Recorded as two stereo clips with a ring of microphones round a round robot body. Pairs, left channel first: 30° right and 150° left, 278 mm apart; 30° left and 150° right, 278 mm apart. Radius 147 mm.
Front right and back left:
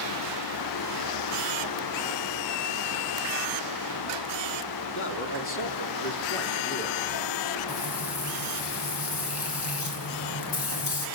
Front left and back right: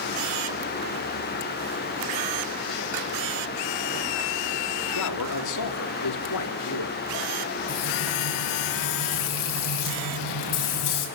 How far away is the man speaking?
About 2.5 m.